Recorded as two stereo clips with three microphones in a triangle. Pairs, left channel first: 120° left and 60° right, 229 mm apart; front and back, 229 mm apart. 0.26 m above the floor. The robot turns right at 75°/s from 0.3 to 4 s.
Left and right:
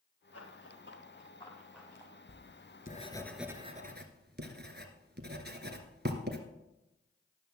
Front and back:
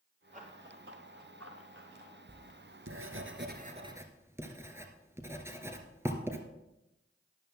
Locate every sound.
0.3 s running footsteps: 120° left, 4 m; by 2.1 s 125° right, 4.5 m
2.3 s writing: 130° left, 1.5 m; by 6.4 s 100° right, 1.5 m